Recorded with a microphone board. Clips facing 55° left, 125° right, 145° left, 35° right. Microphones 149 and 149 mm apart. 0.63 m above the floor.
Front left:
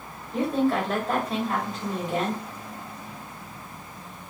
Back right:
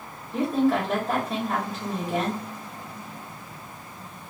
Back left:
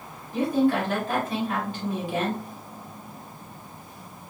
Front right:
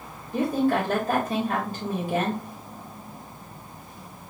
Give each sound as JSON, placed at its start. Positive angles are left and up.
{"t": 0.3, "sound": "a woman speaking", "azimuth_deg": -40, "distance_m": 1.5}